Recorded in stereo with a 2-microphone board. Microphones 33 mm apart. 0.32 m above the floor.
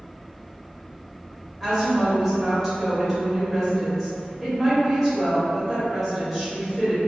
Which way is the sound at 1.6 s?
Centre (ahead or behind).